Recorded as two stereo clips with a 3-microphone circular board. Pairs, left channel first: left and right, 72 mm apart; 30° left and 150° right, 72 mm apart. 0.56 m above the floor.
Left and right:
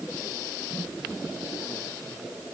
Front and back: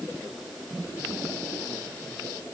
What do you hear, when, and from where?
Only background noise.